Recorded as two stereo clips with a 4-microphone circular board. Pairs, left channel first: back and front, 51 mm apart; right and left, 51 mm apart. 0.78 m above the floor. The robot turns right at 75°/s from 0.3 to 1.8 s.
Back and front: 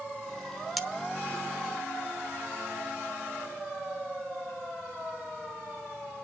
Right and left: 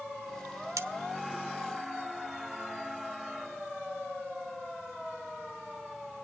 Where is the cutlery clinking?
90° left, 1.2 m; by 0.9 s 100° left, 1.2 m.